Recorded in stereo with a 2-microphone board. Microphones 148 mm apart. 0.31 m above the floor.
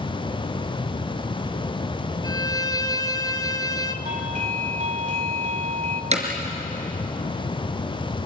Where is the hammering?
45° right (ahead or behind), 3.5 m.